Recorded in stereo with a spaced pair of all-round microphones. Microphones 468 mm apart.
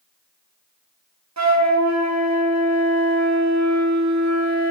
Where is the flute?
35° right (ahead or behind), 0.6 m.